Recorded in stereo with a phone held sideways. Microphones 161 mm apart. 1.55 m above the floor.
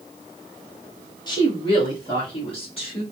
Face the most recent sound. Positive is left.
turn(degrees=35)  # may be behind; listen again after turning